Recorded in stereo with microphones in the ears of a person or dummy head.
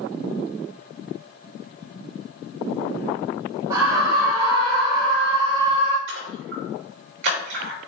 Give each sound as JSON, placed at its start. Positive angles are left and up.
{"t": 3.7, "sound": "a scream", "side_deg": -10, "distance_m": 2.5}
{"t": 6.1, "sound": "a splash", "side_deg": -60, "distance_m": 3.5}